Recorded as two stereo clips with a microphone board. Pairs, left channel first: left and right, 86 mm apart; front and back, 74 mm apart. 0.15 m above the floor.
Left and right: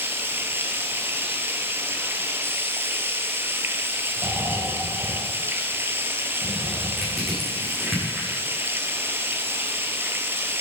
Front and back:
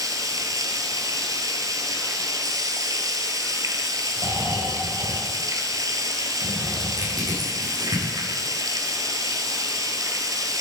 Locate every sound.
0.0 s running water: 150° right, 1.9 m
4.2 s snoring: 150° right, 3.5 m
7.0 s crushing: straight behind, 8.5 m